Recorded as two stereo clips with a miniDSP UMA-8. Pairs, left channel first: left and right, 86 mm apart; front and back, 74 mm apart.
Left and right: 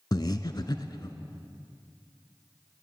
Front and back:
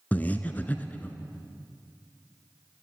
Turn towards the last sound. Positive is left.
turn(degrees=65)